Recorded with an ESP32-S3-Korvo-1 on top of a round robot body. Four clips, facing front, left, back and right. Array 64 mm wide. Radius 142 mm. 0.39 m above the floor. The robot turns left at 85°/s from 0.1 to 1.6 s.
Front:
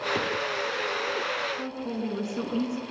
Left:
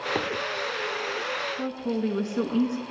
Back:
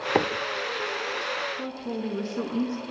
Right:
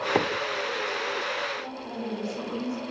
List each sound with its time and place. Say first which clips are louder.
0.1 s a microwave: right 5 dB, back 9 dB; 150° right, 1.1 m; by 0.3 s 160° right, 1.1 m
1.6 s a woman speaking: left 6 dB, even; 75° left, 6 m